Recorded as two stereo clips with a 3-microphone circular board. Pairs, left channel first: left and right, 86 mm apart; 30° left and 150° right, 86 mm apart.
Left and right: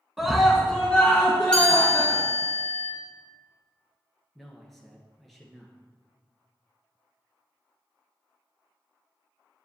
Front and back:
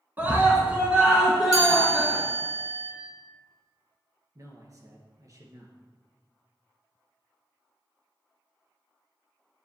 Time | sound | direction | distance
0.2 | a scream | 170° right | 1.3 m
1.5 | a chime | 170° left | 3 m
4.3 | a man speaking | 175° left | 1.7 m